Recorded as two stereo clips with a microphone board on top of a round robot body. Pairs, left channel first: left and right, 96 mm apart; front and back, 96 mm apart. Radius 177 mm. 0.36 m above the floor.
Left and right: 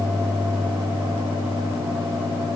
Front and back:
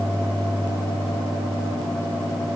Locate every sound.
Only background noise.